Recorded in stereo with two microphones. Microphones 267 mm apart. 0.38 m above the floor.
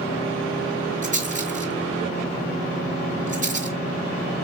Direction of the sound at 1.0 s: 30° right (ahead or behind).